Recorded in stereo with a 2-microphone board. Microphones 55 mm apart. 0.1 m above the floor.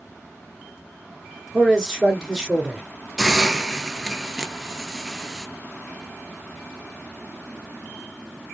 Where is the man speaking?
5° left (ahead or behind), 1.1 m.